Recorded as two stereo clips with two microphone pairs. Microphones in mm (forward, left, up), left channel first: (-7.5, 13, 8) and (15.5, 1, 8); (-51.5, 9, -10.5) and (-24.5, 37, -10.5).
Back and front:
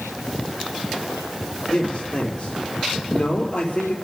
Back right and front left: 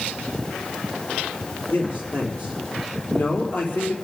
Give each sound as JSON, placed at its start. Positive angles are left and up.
{"t": 1.7, "sound": "a man speaking", "azimuth_deg": -160, "distance_m": 4.0}